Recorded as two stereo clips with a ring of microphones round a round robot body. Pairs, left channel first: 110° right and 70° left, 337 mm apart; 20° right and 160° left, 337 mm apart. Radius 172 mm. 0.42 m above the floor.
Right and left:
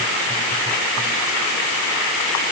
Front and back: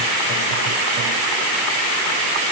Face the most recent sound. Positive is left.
No sound to turn to.